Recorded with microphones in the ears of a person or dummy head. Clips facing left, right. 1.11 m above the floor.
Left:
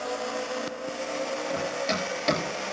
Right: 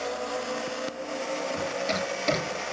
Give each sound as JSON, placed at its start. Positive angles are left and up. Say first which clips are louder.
{"t": 1.5, "sound": "running footsteps", "louder": "even", "side_deg": 10, "distance_m": 9.5}